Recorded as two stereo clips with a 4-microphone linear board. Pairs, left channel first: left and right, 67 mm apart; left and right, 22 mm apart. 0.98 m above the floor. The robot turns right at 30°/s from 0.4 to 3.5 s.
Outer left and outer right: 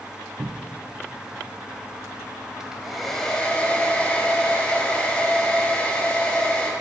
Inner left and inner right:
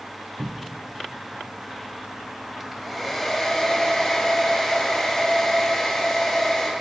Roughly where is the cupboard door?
Right.